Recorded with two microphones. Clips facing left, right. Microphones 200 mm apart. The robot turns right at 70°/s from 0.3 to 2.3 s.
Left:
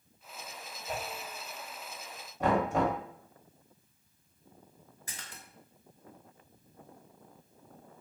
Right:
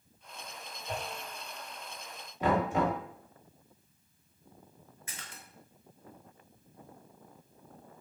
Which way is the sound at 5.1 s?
35° left (ahead or behind).